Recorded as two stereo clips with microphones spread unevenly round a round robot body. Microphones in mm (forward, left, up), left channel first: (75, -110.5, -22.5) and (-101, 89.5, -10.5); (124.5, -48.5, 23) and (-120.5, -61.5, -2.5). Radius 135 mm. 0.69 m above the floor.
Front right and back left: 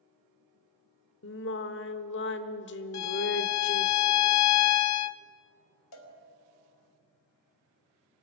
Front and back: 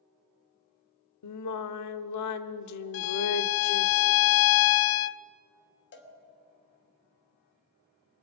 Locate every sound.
1.2 s singing: straight ahead, 1.2 m
2.9 s a violin: 20° right, 0.6 m
5.9 s a cowbell: 40° right, 3 m